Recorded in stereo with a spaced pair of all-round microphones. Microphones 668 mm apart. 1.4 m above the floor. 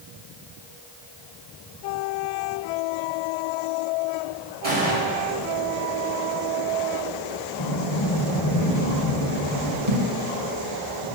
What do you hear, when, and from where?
4.6 s a gunshot: 65° right (ahead or behind), 4.5 m
7.6 s a sliding door: 40° left (ahead or behind), 3.5 m
9.9 s a thud: 65° right (ahead or behind), 3 m